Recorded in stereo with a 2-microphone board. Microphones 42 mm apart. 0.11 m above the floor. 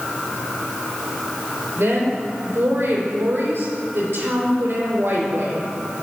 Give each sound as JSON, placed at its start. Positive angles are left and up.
{"t": 1.8, "sound": "a woman speaking", "side_deg": -65, "distance_m": 4.0}